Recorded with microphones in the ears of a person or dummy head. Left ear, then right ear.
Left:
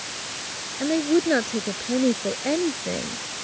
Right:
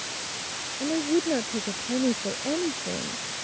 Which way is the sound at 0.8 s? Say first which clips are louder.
Left 4 dB; 70° left (ahead or behind).